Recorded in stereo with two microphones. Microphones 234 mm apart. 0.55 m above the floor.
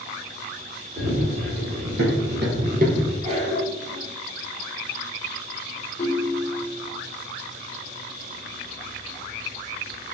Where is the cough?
25° right (ahead or behind), 1.3 m.